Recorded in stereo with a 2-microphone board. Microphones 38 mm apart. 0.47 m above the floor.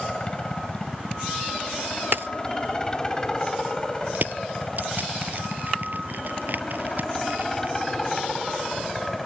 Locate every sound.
0.0 s a helicopter: 25° left (ahead or behind); by 9.3 s 10° left (ahead or behind)
2.1 s a dropped coin: 85° right
4.2 s crushing: 60° right (ahead or behind)